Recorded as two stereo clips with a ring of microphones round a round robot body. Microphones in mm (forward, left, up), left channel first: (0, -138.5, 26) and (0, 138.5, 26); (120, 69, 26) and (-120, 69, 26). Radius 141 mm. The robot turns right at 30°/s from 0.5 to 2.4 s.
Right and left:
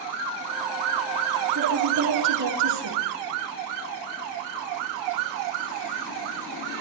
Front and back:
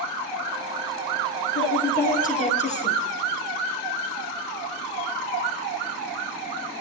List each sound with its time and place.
1.6 s a woman speaking: 35° left, 6.5 m; by 3.0 s 60° left, 6.5 m